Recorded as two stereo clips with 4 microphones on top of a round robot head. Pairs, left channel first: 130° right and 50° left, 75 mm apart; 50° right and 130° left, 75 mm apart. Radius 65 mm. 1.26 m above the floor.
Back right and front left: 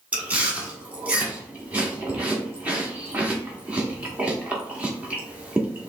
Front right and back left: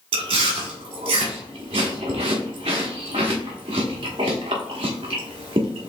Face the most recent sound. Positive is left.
turn(degrees=125)